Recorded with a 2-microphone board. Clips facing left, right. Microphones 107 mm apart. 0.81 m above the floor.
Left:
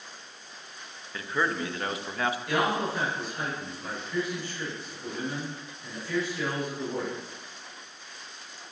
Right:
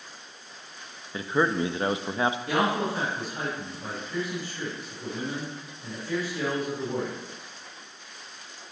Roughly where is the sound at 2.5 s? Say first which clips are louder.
Right 1 dB; right.